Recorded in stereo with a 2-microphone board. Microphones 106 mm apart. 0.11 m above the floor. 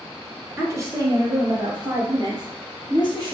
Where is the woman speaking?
25° right (ahead or behind), 1.1 m; by 3.4 s 45° right (ahead or behind), 2.5 m.